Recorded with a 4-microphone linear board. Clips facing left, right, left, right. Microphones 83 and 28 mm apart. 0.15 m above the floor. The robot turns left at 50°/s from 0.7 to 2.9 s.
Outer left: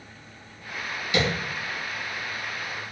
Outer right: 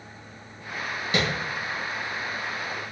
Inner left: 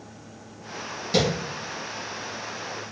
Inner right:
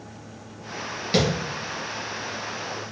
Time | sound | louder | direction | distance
1.1 | tapping | outer left 2 dB, even | 40° right (ahead or behind) | 1.9 m